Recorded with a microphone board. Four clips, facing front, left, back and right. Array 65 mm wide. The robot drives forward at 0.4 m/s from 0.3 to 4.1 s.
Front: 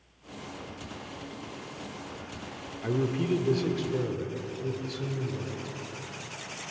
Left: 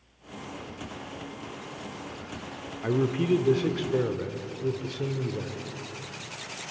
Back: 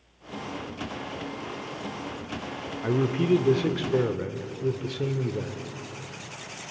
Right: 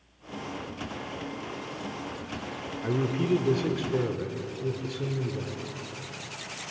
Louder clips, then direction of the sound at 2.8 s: Left 2 dB, back 4 dB; 130° left.